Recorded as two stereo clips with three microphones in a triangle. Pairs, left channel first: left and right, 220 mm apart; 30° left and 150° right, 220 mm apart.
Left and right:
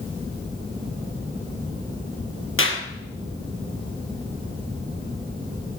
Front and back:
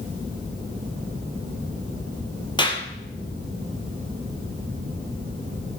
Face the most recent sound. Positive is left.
turn(degrees=95)